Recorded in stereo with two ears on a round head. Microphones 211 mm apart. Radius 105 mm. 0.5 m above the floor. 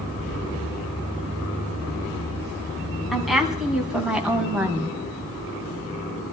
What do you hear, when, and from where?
3.1 s a woman speaking: centre (ahead or behind), 4 m; by 5.0 s 10° right (ahead or behind), 3 m